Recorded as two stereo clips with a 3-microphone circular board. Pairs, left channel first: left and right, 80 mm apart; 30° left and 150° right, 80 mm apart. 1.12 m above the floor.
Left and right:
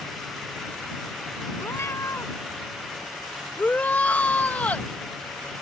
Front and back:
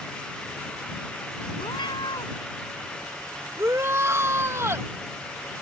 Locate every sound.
1.6 s a cat meowing: 35° left
3.6 s a shout: 160° left